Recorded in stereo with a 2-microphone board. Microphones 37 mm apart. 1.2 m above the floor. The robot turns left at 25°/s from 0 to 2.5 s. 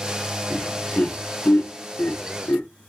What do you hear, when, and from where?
0.5 s laughter: 30° left (ahead or behind), 0.9 m; by 2.7 s 75° left (ahead or behind), 0.9 m